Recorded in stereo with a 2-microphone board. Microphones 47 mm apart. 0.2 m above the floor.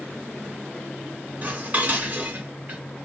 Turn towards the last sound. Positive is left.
turn(degrees=-35)  # may be behind; listen again after turning